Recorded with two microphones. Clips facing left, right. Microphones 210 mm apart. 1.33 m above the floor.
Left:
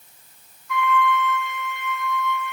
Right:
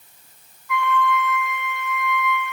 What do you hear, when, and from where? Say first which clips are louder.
0.7 s a flute: even; 80° right, 3 m